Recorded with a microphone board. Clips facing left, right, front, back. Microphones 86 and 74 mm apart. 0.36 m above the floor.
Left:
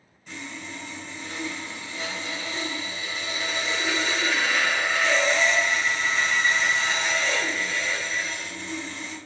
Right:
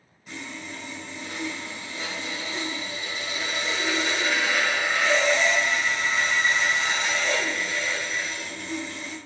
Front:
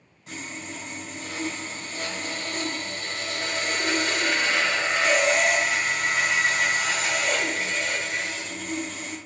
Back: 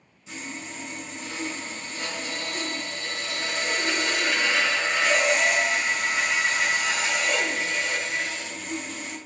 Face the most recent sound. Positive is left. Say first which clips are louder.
# even, even
turn(degrees=-5)